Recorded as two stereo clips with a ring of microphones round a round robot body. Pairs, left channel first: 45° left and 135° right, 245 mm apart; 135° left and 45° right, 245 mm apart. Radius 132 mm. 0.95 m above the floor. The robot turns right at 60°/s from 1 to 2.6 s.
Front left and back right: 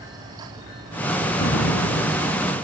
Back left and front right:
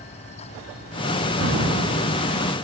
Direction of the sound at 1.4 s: 5° right.